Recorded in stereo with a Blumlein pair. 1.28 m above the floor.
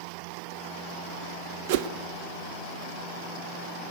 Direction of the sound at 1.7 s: 50° right.